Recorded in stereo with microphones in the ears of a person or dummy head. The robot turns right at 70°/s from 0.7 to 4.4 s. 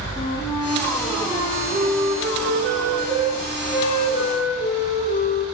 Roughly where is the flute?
Behind left.